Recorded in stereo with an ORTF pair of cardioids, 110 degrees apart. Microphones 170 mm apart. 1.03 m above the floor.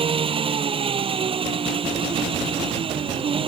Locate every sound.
0.0 s an engine running: 35° right